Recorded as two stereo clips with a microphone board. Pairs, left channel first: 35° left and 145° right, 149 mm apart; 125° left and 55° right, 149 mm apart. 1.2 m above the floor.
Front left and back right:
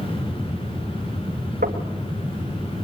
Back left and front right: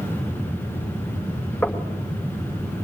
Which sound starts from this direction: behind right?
Knocking, at 1.6 s.